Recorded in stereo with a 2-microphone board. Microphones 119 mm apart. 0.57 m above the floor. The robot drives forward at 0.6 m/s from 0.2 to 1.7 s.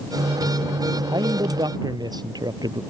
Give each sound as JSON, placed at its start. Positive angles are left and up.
{"t": 1.1, "sound": "a man speaking", "side_deg": -35}